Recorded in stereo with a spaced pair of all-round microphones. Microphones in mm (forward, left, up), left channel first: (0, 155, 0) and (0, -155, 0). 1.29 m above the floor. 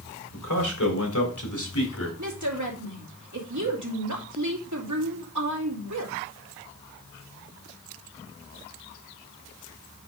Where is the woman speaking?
70° right (ahead or behind), 2.5 m.